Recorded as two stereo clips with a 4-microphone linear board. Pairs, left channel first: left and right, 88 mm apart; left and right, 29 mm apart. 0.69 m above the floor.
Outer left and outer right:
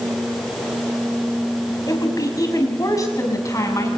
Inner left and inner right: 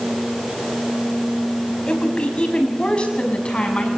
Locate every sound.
1.9 s a woman speaking: 45° left (ahead or behind), 5.5 m; by 3.9 s 35° left (ahead or behind), 7 m